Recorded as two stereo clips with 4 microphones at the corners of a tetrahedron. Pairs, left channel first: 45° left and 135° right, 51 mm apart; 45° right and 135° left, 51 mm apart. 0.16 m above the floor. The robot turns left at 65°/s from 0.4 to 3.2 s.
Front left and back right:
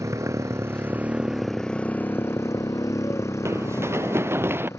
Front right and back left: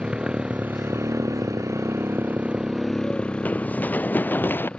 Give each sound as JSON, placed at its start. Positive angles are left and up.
{"t": 0.0, "sound": "a motorcycle", "azimuth_deg": -155}
{"t": 3.5, "sound": "running footsteps", "azimuth_deg": -105}